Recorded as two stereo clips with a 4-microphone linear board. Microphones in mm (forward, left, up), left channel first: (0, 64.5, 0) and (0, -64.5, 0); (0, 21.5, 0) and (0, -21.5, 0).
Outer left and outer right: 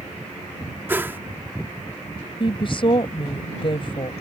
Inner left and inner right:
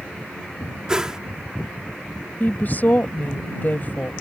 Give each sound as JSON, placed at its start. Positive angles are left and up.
{"t": 0.9, "sound": "a whoosh", "side_deg": -15}
{"t": 2.4, "sound": "a woman speaking", "side_deg": 40}